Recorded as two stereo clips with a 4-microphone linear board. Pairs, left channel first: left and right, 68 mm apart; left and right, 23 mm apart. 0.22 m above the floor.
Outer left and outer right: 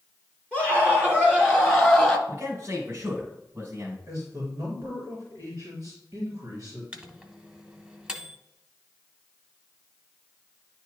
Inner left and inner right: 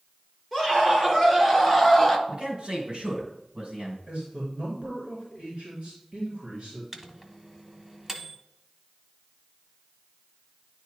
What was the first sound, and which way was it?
A scream, 25° right (ahead or behind).